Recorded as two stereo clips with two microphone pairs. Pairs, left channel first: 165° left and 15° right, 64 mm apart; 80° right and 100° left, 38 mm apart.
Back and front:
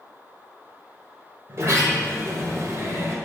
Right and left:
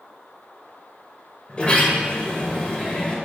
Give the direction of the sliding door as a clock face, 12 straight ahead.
1 o'clock.